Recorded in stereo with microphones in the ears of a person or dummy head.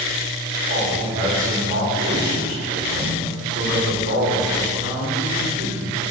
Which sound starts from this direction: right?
A man speaking, at 0.7 s.